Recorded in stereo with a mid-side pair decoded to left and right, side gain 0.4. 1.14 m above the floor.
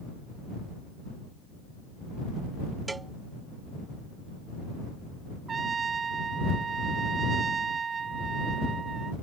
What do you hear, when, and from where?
2.9 s a cowbell: 25° right
5.5 s a trumpet: 45° right